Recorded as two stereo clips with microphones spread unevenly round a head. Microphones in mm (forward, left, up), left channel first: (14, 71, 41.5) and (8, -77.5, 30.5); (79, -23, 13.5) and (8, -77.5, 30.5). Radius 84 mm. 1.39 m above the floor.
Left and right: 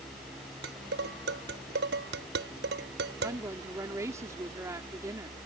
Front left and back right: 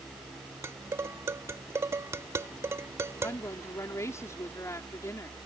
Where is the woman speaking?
20° right.